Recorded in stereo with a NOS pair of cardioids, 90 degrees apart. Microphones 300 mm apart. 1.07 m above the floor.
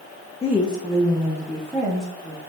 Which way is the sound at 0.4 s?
20° left.